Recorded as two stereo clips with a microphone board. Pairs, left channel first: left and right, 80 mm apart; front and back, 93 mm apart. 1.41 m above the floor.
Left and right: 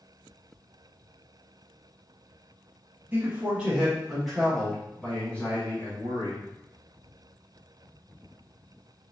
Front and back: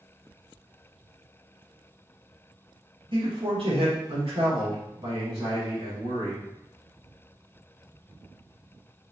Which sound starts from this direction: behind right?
A man speaking, at 3.1 s.